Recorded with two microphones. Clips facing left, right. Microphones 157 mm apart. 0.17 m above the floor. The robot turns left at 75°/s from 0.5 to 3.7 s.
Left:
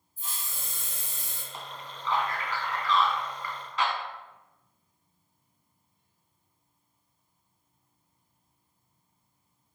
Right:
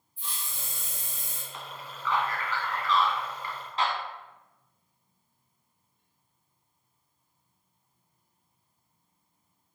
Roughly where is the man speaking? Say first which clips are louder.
Left 1 dB; left.